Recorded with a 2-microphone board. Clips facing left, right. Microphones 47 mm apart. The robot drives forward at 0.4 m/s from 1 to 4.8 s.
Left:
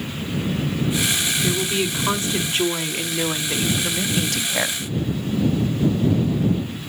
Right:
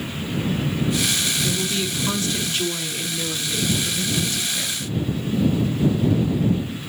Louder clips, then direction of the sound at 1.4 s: Left 2 dB; 30° left (ahead or behind).